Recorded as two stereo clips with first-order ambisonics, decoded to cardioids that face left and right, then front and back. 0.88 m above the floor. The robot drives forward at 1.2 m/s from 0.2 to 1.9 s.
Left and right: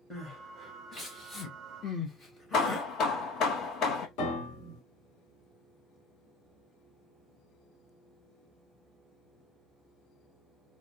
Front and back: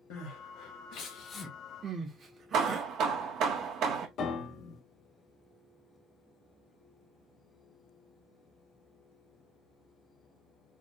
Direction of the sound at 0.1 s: 5° left.